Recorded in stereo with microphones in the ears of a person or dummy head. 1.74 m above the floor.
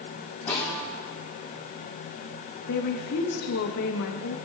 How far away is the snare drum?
About 7.5 m.